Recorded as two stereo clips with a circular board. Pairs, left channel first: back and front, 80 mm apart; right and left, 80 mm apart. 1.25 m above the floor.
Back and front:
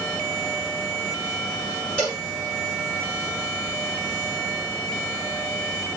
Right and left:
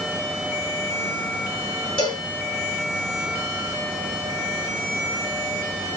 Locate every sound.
2.0 s a cowbell: 105° right, 3 m